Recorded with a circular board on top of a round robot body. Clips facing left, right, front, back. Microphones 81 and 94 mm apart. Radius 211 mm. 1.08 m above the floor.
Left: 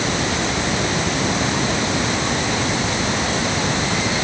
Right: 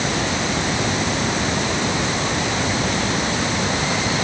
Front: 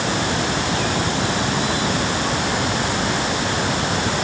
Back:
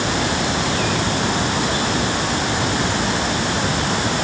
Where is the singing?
I don't hear singing.